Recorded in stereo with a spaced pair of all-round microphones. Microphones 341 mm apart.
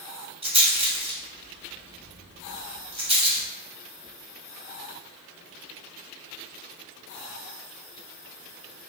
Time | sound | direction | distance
0.4 | a rattle | 15° right (ahead or behind) | 1.0 m